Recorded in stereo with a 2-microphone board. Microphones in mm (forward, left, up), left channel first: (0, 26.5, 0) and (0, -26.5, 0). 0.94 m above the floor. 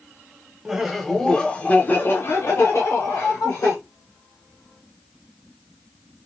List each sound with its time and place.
0.7 s laughter: 10° right (ahead or behind), 0.8 m; by 3.8 s 65° left (ahead or behind), 1.3 m